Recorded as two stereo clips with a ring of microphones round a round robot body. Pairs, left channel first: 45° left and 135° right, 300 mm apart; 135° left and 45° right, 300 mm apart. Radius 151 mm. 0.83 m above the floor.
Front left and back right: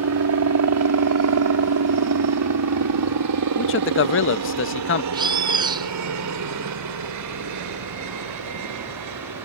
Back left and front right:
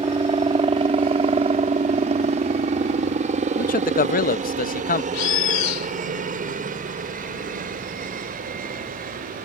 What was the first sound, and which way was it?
A helicopter, 115° right.